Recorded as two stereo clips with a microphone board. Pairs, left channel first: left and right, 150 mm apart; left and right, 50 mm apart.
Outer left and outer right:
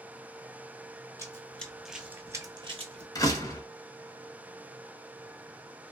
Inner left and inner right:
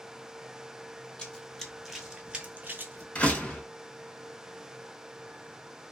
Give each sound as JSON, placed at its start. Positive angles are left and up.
{"t": 1.2, "sound": "running footsteps", "side_deg": 20, "distance_m": 0.8}
{"t": 3.1, "sound": "a door slam", "side_deg": 20, "distance_m": 0.7}